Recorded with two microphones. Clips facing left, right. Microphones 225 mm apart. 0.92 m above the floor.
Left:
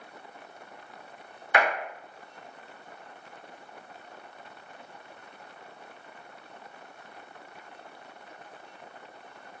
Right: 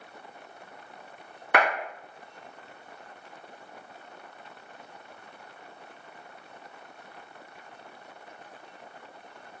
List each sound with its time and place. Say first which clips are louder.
1.5 s a clap: right 1 dB; 65° right (ahead or behind), 1.5 m